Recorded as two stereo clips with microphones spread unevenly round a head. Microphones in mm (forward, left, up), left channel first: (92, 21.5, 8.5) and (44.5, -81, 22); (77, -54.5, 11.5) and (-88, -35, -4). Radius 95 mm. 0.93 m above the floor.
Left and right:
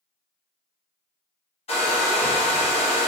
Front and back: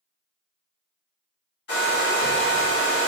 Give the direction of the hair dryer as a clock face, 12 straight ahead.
11 o'clock.